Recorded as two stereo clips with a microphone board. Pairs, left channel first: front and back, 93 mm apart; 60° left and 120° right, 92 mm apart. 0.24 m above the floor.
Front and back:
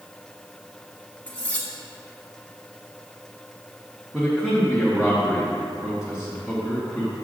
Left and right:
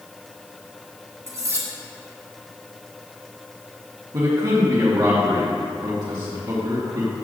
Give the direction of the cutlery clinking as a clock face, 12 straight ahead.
2 o'clock.